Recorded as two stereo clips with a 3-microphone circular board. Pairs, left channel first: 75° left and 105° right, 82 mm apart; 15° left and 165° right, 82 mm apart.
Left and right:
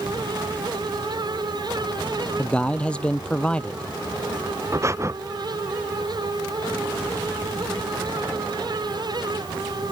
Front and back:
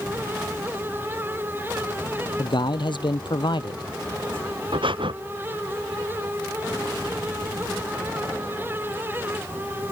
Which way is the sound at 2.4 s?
Straight ahead.